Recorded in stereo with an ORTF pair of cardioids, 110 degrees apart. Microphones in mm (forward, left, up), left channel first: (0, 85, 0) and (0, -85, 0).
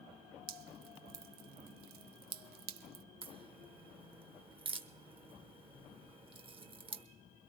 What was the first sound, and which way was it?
Dripping, 65° right.